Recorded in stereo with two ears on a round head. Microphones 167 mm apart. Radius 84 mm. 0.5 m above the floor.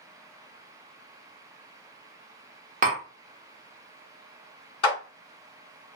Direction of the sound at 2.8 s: 40° right (ahead or behind).